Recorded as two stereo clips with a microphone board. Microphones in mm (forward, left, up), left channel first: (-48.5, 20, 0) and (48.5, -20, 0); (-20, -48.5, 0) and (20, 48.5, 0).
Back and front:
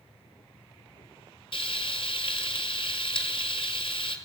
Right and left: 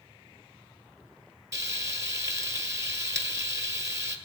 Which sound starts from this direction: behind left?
Frying, at 1.5 s.